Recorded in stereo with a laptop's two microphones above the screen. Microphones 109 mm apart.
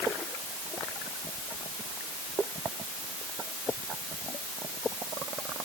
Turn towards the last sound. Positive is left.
No sound to turn to.